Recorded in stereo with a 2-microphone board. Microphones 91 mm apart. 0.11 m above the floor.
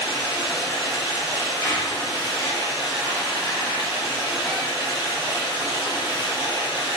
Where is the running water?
65° left (ahead or behind), 1.0 m.